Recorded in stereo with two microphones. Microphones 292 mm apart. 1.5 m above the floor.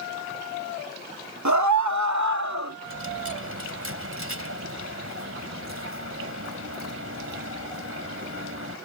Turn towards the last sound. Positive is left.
turn(degrees=-50)  # may be behind; listen again after turning